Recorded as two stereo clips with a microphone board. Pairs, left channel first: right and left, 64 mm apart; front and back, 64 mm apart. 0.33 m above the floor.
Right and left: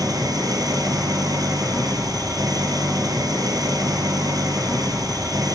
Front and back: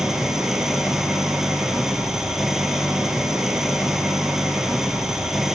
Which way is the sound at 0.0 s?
95° left.